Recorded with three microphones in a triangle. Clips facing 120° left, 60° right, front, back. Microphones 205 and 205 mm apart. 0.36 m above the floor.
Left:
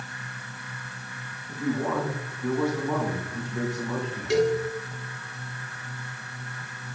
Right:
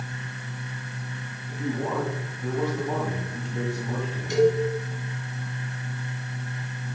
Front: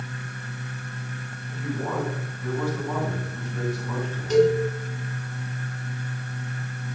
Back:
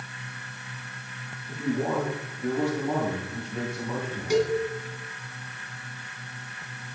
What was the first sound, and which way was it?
A man speaking, 140° right.